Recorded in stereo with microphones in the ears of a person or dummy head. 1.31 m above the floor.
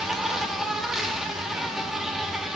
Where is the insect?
5° right (ahead or behind), 1.4 m.